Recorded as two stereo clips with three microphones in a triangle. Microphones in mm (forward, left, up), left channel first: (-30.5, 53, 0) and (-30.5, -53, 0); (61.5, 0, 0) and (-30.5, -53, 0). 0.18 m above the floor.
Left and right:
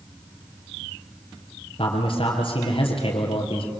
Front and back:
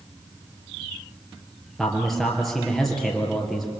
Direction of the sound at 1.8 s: 120° left.